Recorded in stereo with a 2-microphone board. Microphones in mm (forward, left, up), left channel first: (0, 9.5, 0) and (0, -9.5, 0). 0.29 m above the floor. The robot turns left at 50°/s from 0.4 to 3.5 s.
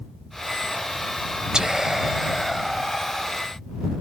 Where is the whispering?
110° right; by 3.3 s 160° left.